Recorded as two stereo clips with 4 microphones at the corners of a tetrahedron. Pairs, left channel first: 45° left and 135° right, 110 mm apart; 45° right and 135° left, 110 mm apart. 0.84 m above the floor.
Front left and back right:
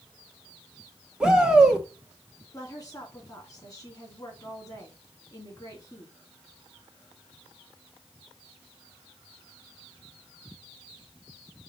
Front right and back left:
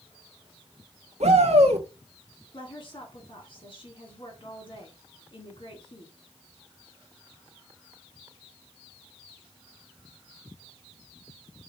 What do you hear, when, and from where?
1.2 s a shout: 145° left, 1.4 m
2.5 s a woman speaking: 10° right, 2.5 m